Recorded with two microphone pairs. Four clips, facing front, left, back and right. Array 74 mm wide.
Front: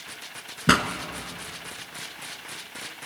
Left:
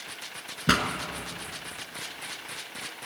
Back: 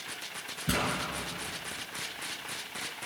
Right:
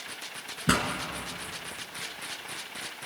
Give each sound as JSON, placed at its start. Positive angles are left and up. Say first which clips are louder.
{"t": 0.7, "sound": "a pop", "louder": "left 2 dB, front 10 dB", "azimuth_deg": 15, "distance_m": 2.0}